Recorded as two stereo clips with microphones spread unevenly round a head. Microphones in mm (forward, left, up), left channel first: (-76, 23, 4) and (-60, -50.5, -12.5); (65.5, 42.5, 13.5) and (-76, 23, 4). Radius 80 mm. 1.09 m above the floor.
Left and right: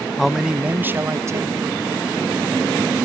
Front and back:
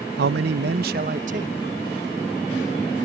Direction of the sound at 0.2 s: 170° right.